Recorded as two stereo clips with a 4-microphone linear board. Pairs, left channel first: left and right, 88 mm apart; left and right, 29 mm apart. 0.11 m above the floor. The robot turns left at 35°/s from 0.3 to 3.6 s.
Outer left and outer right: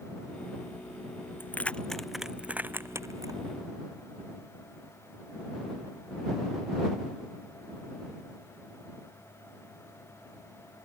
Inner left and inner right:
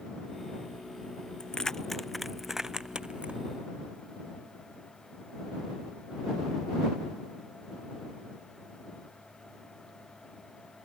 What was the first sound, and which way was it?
Keys jangling, 25° left (ahead or behind).